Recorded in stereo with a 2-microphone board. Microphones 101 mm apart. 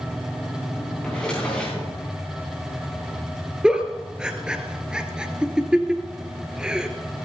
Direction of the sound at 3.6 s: 10° right (ahead or behind).